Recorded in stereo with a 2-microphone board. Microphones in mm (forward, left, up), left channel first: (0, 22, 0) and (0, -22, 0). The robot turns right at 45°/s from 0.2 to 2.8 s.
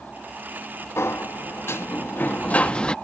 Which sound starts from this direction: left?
A sliding door, at 1.0 s.